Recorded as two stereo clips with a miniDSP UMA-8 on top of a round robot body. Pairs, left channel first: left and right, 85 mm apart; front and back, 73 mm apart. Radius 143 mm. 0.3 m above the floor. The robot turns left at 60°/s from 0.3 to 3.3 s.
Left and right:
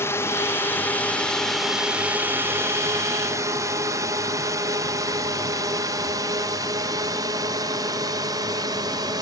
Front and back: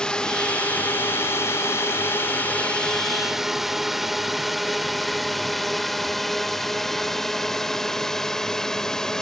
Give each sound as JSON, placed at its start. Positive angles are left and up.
{"t": 0.0, "sound": "a drone", "azimuth_deg": 70}